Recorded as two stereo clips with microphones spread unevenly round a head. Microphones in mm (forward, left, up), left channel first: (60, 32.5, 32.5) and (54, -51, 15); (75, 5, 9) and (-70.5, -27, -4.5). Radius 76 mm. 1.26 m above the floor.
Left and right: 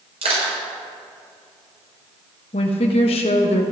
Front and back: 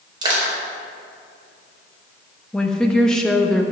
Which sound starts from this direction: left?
A woman speaking, at 2.5 s.